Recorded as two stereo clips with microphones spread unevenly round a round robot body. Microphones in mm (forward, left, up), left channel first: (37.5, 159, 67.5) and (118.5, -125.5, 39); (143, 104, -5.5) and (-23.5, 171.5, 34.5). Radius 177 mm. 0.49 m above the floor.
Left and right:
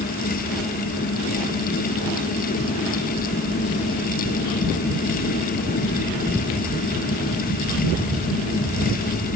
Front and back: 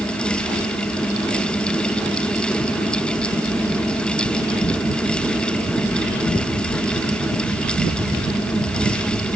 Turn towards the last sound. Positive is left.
No sound to turn to.